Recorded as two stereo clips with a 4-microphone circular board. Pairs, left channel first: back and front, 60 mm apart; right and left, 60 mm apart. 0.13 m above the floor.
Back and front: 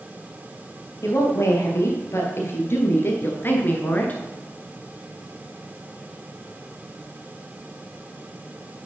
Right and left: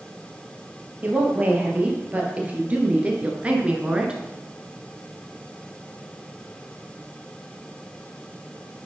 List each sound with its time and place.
1.0 s a woman speaking: 150° left, 2.5 m; by 4.2 s 145° left, 1.3 m